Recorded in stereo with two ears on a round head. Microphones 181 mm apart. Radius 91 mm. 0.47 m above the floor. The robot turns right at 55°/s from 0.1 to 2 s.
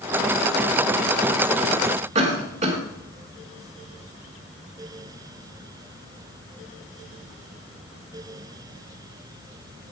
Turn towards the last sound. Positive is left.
turn(degrees=-35)  # may be behind; listen again after turning